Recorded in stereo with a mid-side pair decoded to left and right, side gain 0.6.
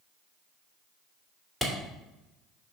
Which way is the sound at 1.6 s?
5° left.